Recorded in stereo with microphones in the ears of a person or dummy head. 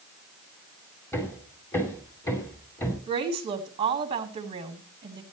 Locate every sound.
1.1 s hammering: 15° left (ahead or behind), 2.5 m
3.1 s a woman speaking: 25° right (ahead or behind), 2.5 m